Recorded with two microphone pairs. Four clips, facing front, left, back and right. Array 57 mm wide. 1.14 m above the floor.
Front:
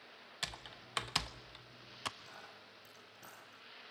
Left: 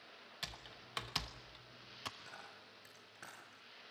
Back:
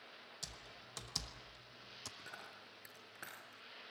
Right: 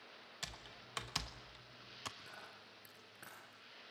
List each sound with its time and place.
0.4 s typing on a keyboard: straight ahead, 1.0 m
2.2 s a dropped coin: 170° left, 5.5 m